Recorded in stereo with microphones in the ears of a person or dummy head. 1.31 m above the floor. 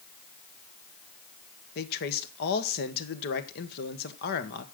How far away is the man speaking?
About 1.4 m.